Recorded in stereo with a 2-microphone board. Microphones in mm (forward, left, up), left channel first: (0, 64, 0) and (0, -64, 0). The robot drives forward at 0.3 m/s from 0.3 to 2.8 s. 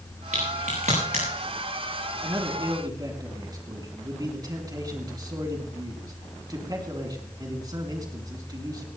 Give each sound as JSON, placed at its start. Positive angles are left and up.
{"t": 0.3, "sound": "a crack", "side_deg": -90, "distance_m": 6.5}
{"t": 2.2, "sound": "a man speaking", "side_deg": -30, "distance_m": 3.0}